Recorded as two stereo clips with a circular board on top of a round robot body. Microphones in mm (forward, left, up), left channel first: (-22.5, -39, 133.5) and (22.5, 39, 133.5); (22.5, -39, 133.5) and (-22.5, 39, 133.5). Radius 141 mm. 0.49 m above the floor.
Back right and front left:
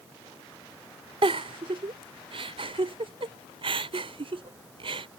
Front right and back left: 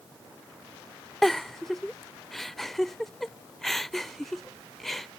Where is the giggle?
30° left.